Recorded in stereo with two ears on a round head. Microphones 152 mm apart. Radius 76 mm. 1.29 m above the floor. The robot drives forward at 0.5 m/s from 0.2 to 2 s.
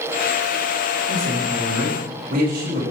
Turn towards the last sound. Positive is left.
turn(degrees=-60)  # may be behind; listen again after turning